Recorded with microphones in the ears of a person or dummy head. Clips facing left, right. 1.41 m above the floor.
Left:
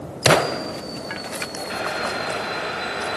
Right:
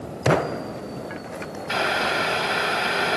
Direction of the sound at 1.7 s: 60° right (ahead or behind).